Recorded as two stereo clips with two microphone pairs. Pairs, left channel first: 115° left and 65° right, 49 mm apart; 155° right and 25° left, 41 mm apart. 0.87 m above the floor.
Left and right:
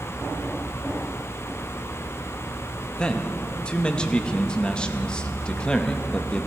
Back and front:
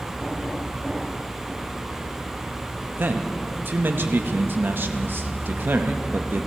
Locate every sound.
3.0 s a man speaking: 45° left, 0.7 m